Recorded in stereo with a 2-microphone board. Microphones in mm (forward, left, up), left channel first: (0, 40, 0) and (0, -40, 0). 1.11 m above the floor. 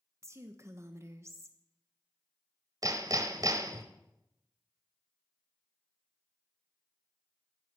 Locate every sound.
0.2 s a woman speaking: 35° right (ahead or behind), 1.1 m
2.8 s hammering: 50° right (ahead or behind), 1.5 m